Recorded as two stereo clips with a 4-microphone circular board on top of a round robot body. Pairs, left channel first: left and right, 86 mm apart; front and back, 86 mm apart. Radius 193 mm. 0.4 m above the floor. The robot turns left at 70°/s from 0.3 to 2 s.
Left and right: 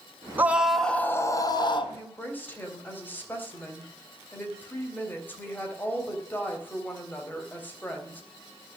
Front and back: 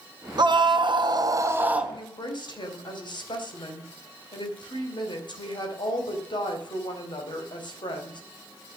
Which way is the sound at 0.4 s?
155° right.